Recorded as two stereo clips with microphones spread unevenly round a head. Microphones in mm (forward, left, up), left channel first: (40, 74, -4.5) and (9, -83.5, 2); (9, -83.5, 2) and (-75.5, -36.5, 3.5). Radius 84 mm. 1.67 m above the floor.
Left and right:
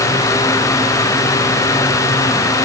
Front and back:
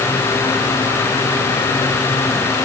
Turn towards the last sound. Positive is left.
No sound to turn to.